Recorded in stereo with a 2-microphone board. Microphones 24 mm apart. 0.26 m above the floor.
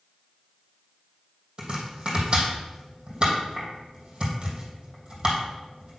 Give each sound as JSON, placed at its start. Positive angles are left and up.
{"t": 1.6, "sound": "chopping", "side_deg": -45, "distance_m": 2.5}